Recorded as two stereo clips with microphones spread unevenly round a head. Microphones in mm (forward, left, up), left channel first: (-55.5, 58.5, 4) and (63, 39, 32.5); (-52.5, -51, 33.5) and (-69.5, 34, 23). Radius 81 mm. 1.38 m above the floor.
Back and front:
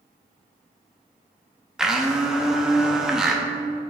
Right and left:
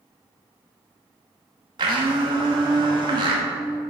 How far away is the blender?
About 0.9 m.